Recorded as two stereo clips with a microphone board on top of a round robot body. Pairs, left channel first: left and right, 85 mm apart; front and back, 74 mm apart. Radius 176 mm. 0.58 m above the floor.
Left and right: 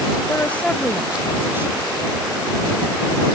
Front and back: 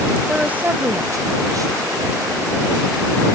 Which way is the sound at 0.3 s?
105° left.